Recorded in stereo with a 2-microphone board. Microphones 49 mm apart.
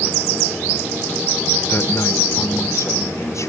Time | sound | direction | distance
1.7 | a man speaking | 50° left (ahead or behind) | 1.3 m